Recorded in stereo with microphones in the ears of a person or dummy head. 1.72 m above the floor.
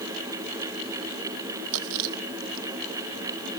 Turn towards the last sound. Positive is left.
turn(degrees=-80)